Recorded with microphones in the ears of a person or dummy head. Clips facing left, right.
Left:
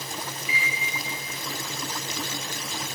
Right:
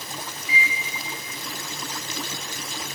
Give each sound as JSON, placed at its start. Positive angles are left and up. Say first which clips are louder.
{"t": 0.5, "sound": "a microwave", "louder": "right 7 dB", "side_deg": 15, "distance_m": 1.5}